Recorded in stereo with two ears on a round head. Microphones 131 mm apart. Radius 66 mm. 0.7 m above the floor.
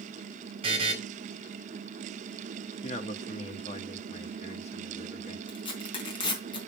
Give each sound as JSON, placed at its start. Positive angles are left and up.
{"t": 0.6, "sound": "a buzzer", "side_deg": -40, "distance_m": 4.5}
{"t": 2.8, "sound": "a man speaking", "side_deg": 45, "distance_m": 1.4}
{"t": 5.5, "sound": "tearing paper", "side_deg": 35, "distance_m": 4.5}